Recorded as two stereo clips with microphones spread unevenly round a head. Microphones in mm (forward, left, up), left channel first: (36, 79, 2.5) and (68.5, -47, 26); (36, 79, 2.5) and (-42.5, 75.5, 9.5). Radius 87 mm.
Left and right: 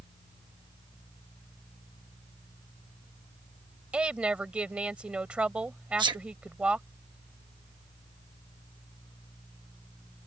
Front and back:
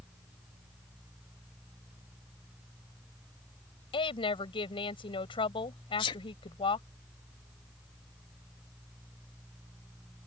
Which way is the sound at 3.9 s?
5° left.